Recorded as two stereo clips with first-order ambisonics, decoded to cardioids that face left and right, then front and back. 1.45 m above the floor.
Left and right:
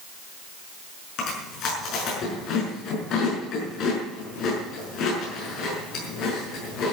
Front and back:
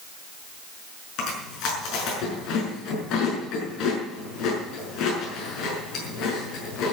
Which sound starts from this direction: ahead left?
Chewing, at 1.2 s.